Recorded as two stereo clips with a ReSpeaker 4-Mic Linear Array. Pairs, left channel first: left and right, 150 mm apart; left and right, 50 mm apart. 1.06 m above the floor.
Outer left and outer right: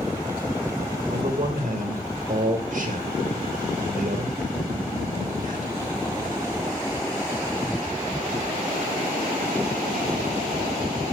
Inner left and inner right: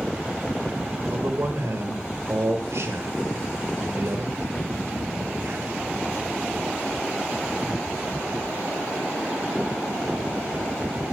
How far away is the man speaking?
About 1.3 m.